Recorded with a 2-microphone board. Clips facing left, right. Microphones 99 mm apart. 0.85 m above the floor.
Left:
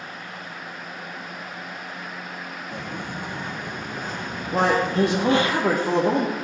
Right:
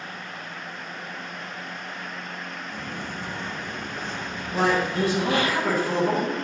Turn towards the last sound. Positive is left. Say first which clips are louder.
# left 2 dB
turn(degrees=65)  # may be behind; listen again after turning